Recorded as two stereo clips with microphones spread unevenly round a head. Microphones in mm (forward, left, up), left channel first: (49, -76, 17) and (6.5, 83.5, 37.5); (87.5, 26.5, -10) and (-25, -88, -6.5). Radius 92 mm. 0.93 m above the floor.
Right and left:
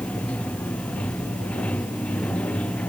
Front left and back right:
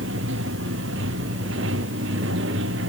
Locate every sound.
0.0 s running water: 160° right